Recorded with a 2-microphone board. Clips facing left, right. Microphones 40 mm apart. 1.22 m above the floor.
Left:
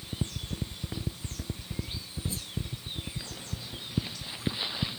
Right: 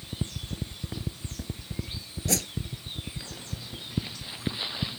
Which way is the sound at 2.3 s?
75° right (ahead or behind).